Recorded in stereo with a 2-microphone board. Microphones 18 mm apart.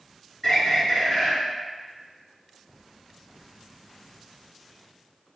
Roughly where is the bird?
Left.